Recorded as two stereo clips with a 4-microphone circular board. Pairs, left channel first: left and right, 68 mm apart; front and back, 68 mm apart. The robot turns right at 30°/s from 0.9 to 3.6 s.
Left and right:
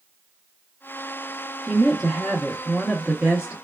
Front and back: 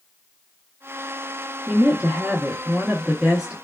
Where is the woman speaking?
175° right, 0.8 m; by 3.5 s 120° right, 0.8 m.